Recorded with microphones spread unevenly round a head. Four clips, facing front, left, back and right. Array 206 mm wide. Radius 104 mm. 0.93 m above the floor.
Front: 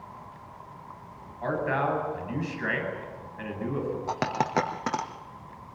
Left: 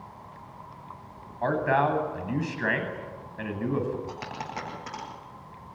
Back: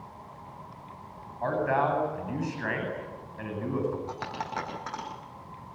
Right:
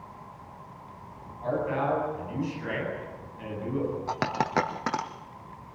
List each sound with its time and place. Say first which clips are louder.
1.4 s a man speaking: left 4 dB, back 1 dB; 95° left, 8.5 m
4.1 s a dropped coin: right 8 dB, front 7 dB; 45° right, 3.5 m